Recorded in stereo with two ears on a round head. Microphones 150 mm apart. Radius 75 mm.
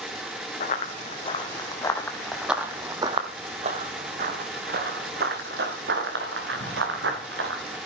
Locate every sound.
0.6 s running footsteps: 45° left (ahead or behind), 2 m; by 7.8 s 75° right (ahead or behind), 5 m